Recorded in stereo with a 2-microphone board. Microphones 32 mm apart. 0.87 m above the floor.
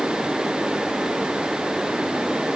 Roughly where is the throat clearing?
No throat clearing in this recording.